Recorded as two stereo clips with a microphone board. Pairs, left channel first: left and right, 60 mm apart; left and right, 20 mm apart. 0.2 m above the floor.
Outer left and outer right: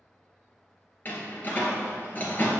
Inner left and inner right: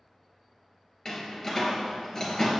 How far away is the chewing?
No chewing in this recording.